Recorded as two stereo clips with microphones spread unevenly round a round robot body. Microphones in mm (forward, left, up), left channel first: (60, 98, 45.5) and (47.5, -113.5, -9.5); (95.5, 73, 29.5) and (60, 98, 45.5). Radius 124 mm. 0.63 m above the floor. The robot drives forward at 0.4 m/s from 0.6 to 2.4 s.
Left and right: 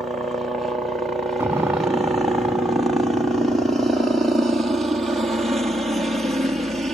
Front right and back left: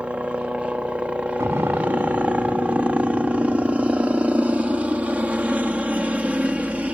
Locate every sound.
0.0 s a helicopter: 145° right; by 7.0 s 150° right
1.4 s an explosion: straight behind